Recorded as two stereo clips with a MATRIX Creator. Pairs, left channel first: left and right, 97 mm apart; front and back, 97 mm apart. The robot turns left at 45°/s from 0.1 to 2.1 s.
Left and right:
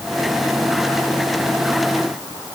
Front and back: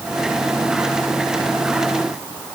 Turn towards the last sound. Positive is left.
No sound to turn to.